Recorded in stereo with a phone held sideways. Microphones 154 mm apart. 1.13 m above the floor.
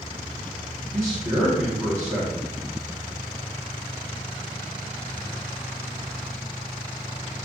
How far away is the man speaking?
About 0.9 m.